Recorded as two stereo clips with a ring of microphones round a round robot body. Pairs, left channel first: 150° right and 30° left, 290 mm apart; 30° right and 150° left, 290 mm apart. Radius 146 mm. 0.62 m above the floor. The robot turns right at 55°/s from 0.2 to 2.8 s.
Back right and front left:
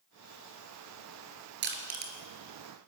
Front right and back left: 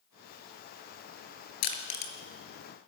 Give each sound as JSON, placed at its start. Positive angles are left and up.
{"t": 1.6, "sound": "crushing", "azimuth_deg": -25, "distance_m": 3.5}